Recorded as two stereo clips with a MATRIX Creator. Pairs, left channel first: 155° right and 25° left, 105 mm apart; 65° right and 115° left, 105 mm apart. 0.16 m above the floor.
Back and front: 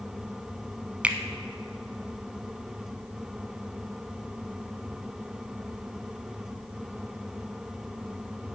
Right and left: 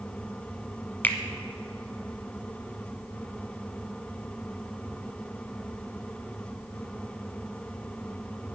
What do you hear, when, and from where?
1.0 s a finger snap: 30° right, 0.8 m